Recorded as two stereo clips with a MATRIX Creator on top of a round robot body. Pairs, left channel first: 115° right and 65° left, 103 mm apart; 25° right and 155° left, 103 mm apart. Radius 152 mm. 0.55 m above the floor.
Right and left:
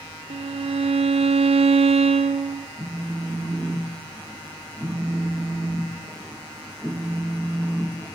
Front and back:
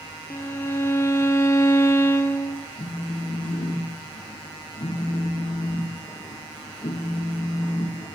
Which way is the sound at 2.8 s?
25° right.